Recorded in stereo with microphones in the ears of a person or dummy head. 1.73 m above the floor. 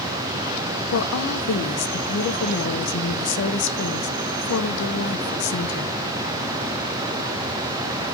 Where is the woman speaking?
60° left (ahead or behind), 1.3 m.